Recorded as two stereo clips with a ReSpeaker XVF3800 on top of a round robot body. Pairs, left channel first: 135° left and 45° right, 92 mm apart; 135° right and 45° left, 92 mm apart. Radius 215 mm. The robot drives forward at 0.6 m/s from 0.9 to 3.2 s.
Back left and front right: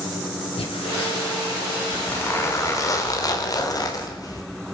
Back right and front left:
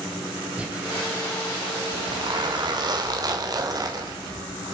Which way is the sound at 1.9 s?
70° left.